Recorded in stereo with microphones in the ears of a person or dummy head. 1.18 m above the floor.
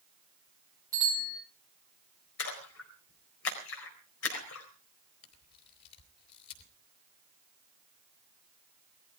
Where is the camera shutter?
55° left (ahead or behind), 3.5 m.